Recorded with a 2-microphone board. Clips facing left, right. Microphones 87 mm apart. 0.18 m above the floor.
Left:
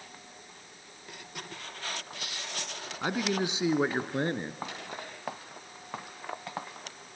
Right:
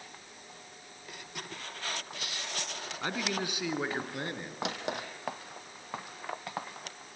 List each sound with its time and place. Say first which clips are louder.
3.0 s a man speaking: left 5 dB; 15° left (ahead or behind), 1.5 m; by 4.5 s 30° left (ahead or behind), 2 m
4.6 s a drawer: right 4 dB; 70° right (ahead or behind), 3.5 m